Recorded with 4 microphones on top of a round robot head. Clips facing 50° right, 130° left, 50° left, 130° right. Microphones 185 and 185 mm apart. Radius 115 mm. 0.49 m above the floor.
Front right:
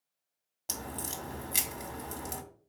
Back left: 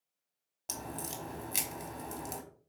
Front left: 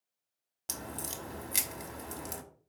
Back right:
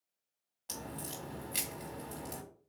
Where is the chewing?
I don't hear chewing.